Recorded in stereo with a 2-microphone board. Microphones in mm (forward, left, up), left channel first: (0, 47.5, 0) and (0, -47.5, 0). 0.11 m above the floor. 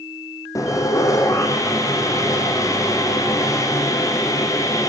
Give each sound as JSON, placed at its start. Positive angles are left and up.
{"t": 0.6, "sound": "sawing", "side_deg": 35, "distance_m": 3.0}